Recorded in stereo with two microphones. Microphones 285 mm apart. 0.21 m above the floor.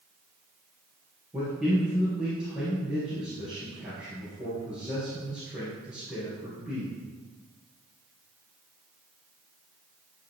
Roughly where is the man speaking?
Centre.